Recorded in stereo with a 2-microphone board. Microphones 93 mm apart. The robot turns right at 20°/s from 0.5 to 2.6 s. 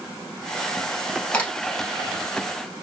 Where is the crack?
20° left (ahead or behind), 1.4 m.